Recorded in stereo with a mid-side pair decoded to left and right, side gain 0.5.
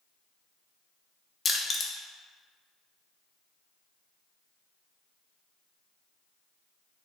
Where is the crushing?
45° left, 0.7 m.